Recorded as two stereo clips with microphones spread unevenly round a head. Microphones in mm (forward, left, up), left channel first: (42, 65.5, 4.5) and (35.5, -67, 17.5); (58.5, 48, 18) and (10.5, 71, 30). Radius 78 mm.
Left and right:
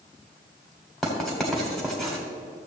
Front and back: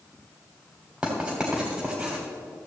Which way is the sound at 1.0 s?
175° right.